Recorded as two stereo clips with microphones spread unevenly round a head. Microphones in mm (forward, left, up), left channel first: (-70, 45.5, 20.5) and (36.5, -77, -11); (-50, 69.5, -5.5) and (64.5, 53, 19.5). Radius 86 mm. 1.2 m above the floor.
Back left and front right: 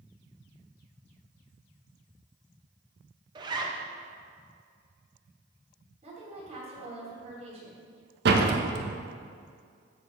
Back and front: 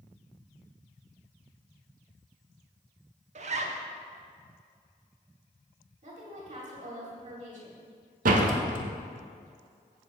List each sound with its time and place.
3.4 s a zipper: straight ahead, 1.0 m
6.0 s a woman speaking: 5° left, 2.5 m
8.2 s a door slam: 15° right, 0.9 m